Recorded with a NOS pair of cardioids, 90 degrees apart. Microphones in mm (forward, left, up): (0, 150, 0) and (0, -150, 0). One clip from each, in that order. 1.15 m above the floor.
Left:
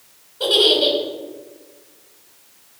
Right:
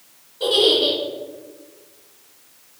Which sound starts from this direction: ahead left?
A giggle, at 0.4 s.